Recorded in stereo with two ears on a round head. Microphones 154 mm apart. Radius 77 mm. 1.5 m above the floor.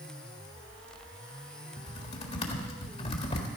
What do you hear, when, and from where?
1.8 s typing on a keyboard: 35° left (ahead or behind), 1.7 m